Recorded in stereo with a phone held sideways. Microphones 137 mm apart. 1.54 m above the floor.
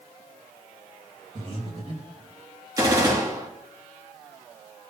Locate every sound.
1.4 s breathing: 40° right (ahead or behind), 1.8 m
2.8 s a gunshot: 25° right (ahead or behind), 1.7 m